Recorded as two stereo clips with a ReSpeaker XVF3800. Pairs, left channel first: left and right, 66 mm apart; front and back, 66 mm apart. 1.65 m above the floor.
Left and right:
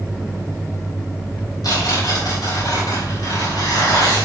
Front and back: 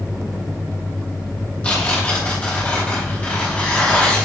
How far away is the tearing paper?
About 3.5 m.